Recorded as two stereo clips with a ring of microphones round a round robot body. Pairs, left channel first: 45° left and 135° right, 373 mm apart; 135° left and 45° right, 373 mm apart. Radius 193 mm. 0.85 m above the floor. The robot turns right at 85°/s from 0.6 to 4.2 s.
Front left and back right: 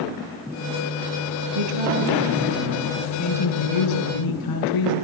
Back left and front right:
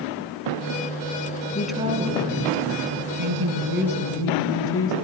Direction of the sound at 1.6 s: 145° right.